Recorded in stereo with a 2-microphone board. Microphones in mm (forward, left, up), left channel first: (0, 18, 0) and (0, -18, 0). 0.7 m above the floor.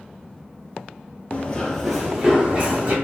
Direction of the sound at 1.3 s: 35° left (ahead or behind).